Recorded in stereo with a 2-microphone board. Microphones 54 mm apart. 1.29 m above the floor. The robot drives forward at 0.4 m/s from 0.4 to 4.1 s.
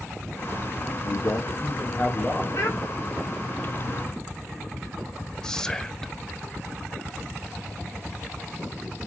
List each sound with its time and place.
1.0 s a man speaking: 55° left (ahead or behind), 0.8 m; by 2.5 s 35° left (ahead or behind), 1.2 m
2.5 s a child speaking: 50° left (ahead or behind), 1.0 m; by 2.8 s 55° left (ahead or behind), 0.9 m
5.4 s whispering: 10° left (ahead or behind), 0.6 m